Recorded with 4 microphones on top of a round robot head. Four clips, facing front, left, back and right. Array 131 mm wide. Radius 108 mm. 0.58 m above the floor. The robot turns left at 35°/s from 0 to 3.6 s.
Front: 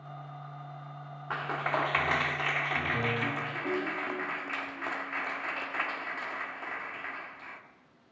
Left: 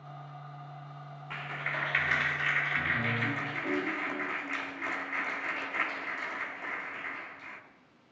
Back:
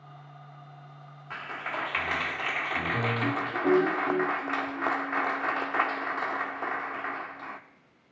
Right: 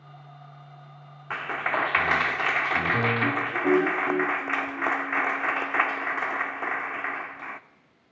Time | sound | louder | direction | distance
1.3 | a clap | right 10 dB, front 4 dB | 45° right | 1.3 m